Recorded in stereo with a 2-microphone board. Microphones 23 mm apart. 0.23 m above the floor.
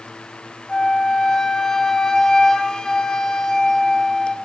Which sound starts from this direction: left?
A flute, at 0.7 s.